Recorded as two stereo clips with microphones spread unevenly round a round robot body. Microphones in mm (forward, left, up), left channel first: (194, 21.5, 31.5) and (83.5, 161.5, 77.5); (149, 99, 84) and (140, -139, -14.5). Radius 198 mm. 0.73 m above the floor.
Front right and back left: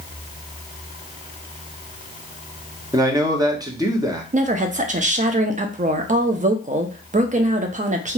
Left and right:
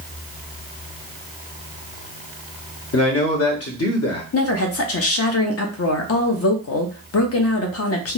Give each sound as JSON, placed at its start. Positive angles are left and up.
{"t": 2.9, "sound": "a man speaking", "azimuth_deg": 50, "distance_m": 1.2}
{"t": 4.3, "sound": "a woman speaking", "azimuth_deg": 80, "distance_m": 0.6}